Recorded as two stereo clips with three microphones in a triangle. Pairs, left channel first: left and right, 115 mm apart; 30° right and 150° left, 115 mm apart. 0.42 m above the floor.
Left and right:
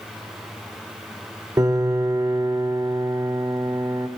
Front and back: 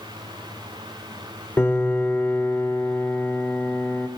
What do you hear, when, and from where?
1.6 s a piano: 80° right, 1.6 m